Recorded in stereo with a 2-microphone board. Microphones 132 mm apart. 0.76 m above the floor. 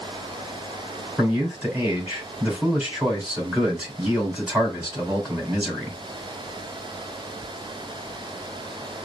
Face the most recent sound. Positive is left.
turn(degrees=-10)  # may be behind; listen again after turning